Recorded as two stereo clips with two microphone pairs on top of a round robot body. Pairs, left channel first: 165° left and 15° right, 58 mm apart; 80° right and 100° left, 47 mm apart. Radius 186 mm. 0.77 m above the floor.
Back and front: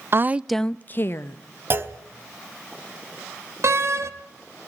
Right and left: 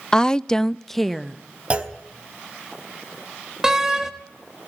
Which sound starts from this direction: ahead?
A door slam, at 3.6 s.